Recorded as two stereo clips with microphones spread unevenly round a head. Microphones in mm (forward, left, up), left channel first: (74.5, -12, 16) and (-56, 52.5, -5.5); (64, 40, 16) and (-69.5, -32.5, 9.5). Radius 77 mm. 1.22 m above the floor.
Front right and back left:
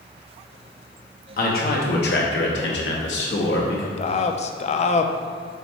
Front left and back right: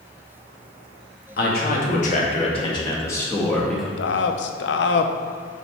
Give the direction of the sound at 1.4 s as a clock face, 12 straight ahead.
12 o'clock.